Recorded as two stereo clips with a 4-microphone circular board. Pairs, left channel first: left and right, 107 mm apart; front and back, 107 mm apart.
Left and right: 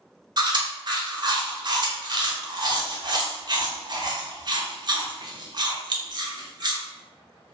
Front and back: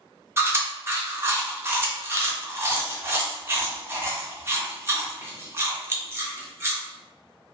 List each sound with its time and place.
0.4 s chewing: 120° right, 0.5 m